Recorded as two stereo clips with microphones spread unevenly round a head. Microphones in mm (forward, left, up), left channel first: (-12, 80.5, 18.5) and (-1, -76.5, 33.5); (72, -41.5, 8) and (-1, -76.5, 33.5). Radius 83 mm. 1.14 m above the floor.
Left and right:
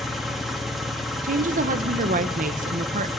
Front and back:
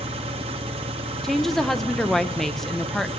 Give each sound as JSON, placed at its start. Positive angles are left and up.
{"t": 0.0, "sound": "an engine running", "azimuth_deg": -175, "distance_m": 1.6}
{"t": 1.2, "sound": "a woman speaking", "azimuth_deg": -50, "distance_m": 1.0}